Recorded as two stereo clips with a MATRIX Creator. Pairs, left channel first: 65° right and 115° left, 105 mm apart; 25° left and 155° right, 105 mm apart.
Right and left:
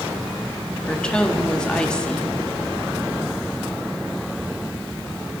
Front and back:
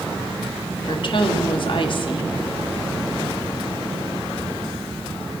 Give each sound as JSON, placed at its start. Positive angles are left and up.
{"t": 0.9, "sound": "a woman speaking", "azimuth_deg": 10, "distance_m": 1.4}